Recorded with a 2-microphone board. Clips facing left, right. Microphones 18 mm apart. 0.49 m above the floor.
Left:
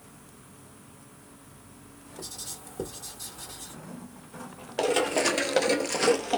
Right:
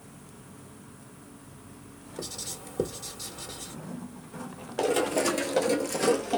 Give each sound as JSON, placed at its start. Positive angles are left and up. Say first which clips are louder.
{"t": 2.2, "sound": "writing", "louder": "right 3 dB", "side_deg": -25, "distance_m": 1.5}
{"t": 4.8, "sound": "running footsteps", "louder": "left 1 dB", "side_deg": 20, "distance_m": 0.7}